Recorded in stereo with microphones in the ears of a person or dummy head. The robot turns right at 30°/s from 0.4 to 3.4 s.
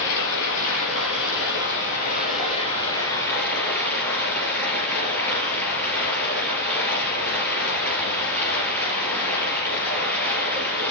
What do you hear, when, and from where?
0.0 s running water: 75° left, 3.5 m; by 10.9 s 165° left, 3.5 m